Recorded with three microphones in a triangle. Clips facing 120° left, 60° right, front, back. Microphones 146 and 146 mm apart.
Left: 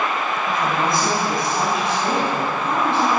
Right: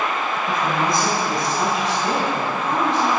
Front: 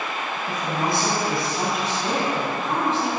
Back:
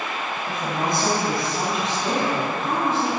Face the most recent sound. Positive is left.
turn(degrees=120)